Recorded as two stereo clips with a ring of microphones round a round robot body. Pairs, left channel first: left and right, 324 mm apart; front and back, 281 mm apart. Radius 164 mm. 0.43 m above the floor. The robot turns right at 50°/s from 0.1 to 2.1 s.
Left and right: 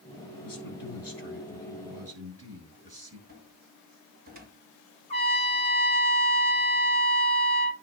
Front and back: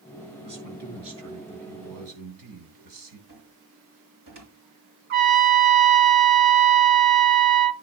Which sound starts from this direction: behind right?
A cupboard door, at 3.3 s.